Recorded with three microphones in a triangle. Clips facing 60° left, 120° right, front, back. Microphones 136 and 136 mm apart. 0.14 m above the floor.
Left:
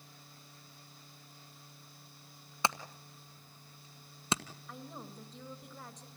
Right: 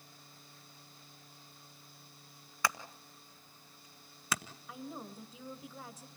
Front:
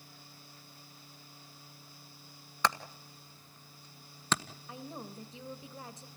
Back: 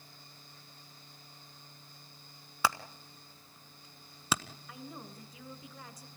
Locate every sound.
2.6 s hammering: 105° left, 1.2 m
4.7 s a woman speaking: 40° right, 1.7 m